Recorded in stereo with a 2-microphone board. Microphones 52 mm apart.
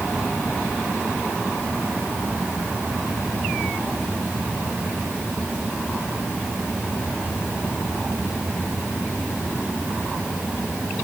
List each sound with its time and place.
Only background noise.